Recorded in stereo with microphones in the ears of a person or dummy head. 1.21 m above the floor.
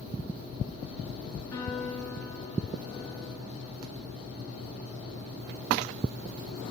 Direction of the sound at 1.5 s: 20° left (ahead or behind).